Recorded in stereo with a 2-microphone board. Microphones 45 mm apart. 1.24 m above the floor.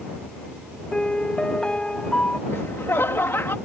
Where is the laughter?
75° left (ahead or behind).